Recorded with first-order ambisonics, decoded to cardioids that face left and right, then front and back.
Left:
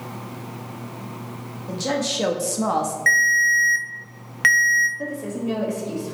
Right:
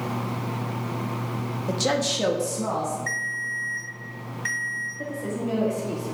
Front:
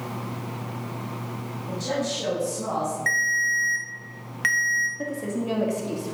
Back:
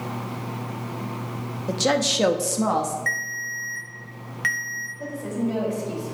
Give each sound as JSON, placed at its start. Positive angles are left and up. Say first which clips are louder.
{"t": 1.7, "sound": "a woman speaking", "louder": "even, back 7 dB", "azimuth_deg": -150, "distance_m": 0.7}
{"t": 3.1, "sound": "a ringtone", "louder": "left 12 dB, front 5 dB", "azimuth_deg": 80, "distance_m": 0.6}
{"t": 5.0, "sound": "a woman speaking", "louder": "left 1 dB, even", "azimuth_deg": 10, "distance_m": 1.3}